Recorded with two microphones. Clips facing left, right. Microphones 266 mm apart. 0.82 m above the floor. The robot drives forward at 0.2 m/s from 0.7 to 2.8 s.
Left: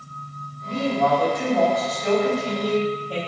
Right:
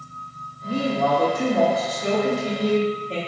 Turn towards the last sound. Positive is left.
turn(degrees=-25)  # may be behind; listen again after turning